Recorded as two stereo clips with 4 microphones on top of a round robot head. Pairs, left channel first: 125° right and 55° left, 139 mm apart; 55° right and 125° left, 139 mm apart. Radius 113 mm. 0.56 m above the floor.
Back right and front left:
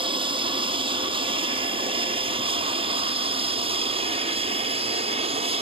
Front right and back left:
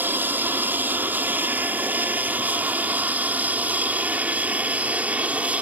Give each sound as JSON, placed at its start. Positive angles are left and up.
{"t": 0.0, "sound": "an aircraft", "azimuth_deg": 60}